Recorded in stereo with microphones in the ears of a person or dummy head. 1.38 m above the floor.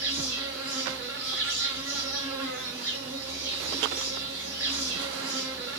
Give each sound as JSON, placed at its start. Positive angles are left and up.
{"t": 0.0, "sound": "an insect", "side_deg": -30, "distance_m": 1.4}